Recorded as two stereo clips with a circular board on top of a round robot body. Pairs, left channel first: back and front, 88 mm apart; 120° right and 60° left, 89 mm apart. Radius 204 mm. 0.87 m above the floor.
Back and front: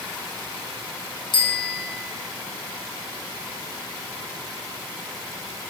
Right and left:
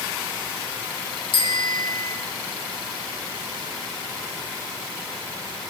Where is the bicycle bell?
150° right, 8 m.